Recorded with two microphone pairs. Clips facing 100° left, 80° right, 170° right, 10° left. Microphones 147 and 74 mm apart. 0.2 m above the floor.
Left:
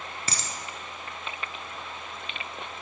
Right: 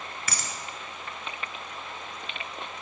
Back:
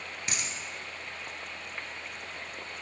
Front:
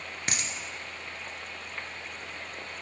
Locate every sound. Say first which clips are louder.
0.3 s a dropped coin: even, front 3 dB; 40° left, 0.7 m